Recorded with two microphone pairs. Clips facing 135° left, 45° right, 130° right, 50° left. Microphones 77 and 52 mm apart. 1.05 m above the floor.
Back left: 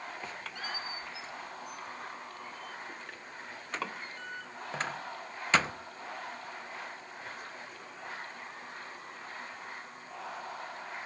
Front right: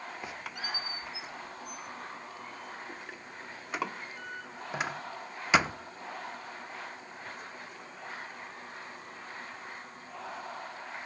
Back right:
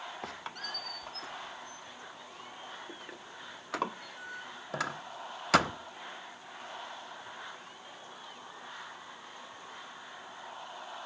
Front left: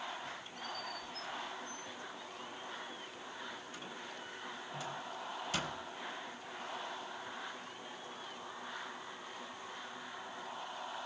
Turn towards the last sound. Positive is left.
turn(degrees=-125)